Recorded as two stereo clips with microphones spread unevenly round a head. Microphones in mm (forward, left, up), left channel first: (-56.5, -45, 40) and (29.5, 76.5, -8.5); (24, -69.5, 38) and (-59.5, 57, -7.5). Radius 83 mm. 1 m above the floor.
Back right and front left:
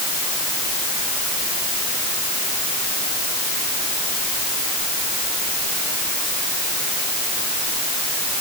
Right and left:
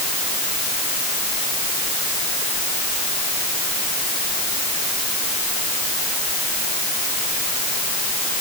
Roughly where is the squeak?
No squeak in this recording.